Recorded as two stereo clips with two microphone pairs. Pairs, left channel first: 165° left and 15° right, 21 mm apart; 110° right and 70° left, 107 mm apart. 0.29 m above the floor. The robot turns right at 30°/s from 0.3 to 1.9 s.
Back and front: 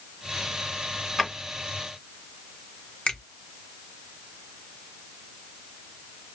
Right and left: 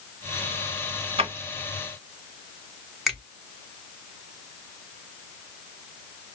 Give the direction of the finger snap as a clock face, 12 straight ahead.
7 o'clock.